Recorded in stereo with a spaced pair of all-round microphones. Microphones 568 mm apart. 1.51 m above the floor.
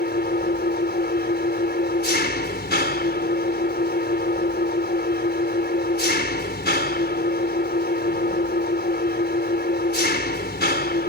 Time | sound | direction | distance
0.0 | an engine running | 15° left (ahead or behind) | ?